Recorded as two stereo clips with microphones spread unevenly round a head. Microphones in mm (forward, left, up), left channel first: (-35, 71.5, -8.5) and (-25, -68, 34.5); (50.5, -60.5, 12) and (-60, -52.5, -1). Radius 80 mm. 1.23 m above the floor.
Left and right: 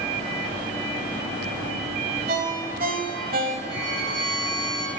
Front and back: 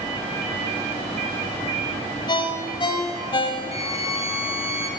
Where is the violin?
30° right, 6 m.